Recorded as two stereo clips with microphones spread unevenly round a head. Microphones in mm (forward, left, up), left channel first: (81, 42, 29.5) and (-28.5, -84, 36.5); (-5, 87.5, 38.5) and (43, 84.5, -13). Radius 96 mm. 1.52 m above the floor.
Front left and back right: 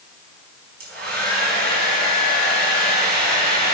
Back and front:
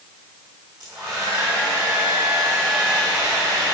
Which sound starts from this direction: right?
A hair dryer, at 0.8 s.